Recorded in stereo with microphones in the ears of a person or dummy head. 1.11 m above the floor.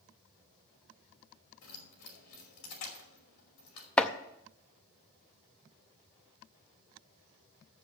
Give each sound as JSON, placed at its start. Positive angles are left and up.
{"t": 1.6, "sound": "keys jangling", "side_deg": 80, "distance_m": 2.5}
{"t": 4.0, "sound": "chopping", "side_deg": 5, "distance_m": 0.5}